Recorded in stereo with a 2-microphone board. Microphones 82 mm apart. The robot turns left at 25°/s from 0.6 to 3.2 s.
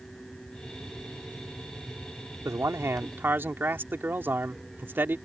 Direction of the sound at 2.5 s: 40° right (ahead or behind).